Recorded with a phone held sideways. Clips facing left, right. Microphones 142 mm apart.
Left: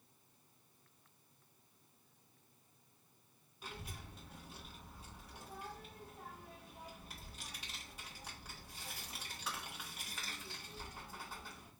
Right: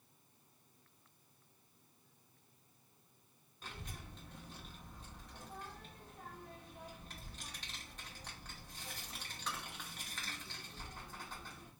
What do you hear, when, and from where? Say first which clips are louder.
3.6 s a child speaking: left 1 dB; 10° left (ahead or behind), 1.2 m